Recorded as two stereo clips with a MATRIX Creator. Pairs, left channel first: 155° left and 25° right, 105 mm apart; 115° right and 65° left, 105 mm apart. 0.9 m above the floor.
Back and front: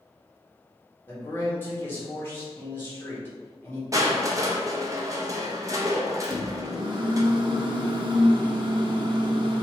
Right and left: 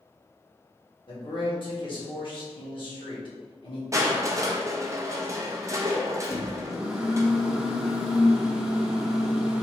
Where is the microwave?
15° right, 0.6 m.